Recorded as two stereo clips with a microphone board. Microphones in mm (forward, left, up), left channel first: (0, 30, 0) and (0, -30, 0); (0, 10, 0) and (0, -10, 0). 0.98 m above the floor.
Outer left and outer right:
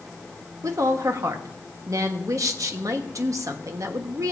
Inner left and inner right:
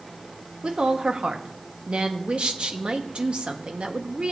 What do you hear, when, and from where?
0.6 s a woman speaking: 65° right (ahead or behind), 1.1 m